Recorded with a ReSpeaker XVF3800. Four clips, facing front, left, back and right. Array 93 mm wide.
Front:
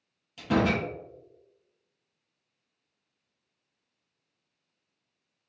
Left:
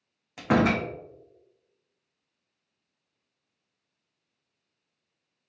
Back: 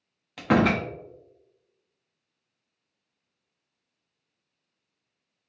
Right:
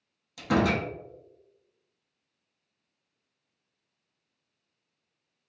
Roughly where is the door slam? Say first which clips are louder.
Left 2 dB, back 4 dB; behind left.